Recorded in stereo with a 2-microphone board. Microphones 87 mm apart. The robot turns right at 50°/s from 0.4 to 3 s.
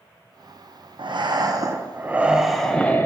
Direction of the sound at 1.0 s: 75° right.